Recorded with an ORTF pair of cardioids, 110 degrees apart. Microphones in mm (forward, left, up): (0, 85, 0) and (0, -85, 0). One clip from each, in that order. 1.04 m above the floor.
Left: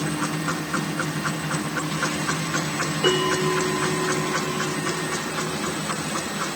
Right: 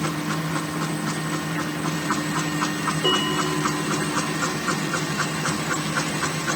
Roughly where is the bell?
Ahead.